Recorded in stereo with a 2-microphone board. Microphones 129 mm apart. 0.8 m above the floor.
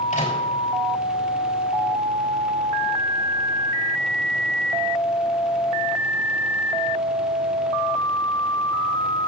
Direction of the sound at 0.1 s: 75° left (ahead or behind).